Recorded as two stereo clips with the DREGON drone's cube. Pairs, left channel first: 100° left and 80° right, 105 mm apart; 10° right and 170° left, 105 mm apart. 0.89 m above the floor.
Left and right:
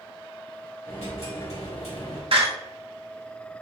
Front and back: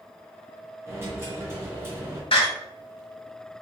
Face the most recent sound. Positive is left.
turn(degrees=-50)